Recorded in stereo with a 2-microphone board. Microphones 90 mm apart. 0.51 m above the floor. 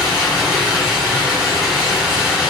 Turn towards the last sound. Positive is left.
turn(degrees=-5)  # may be behind; listen again after turning